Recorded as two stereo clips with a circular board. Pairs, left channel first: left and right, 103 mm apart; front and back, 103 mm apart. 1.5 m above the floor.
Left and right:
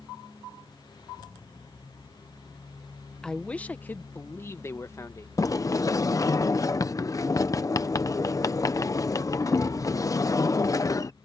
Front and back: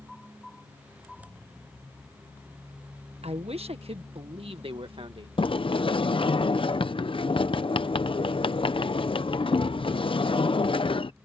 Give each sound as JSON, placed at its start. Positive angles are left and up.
{"t": 3.2, "sound": "a man speaking", "azimuth_deg": 175}
{"t": 5.4, "sound": "a sliding door", "azimuth_deg": 35}